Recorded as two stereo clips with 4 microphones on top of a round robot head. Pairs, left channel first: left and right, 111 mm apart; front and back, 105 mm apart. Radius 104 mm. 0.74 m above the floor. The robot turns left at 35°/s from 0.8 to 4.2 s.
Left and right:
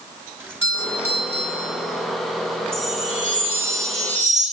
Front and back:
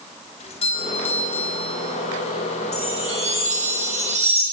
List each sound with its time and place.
0.4 s a doorbell: 15° right, 5.5 m; by 1.9 s 55° right, 5.5 m
2.7 s a chime: 140° right, 7.5 m; by 4.4 s 170° left, 7.5 m